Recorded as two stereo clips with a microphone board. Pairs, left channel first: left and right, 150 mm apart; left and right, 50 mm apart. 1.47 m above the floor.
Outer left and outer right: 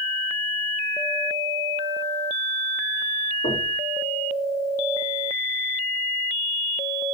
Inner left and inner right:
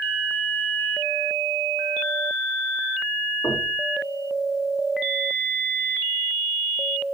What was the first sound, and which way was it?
Knocking, 80° left.